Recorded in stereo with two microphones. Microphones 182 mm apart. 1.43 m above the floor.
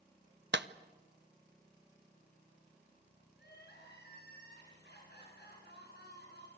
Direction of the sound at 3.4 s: 65° left (ahead or behind).